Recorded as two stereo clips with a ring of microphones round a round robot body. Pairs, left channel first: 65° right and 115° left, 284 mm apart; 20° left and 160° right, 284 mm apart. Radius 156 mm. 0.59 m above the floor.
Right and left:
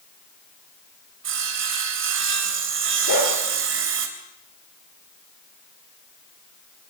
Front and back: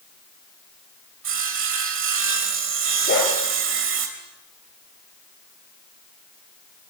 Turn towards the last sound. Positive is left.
turn(degrees=-35)